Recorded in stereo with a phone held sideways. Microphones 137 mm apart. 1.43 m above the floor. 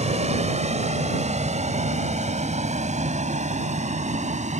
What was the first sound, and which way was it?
A vehicle, 60° right (ahead or behind).